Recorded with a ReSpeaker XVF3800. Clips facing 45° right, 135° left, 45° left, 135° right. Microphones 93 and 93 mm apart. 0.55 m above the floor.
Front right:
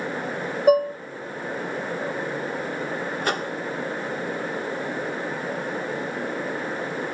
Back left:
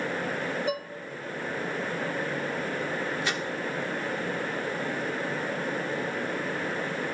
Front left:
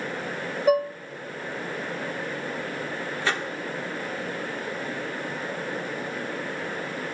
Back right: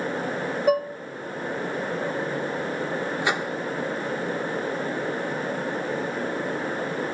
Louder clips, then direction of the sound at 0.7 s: Front right 14 dB, front left 1 dB; 45° right.